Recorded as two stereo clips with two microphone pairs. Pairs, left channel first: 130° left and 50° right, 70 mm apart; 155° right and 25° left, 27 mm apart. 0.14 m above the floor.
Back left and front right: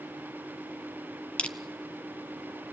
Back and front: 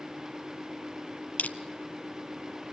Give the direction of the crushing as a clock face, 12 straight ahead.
5 o'clock.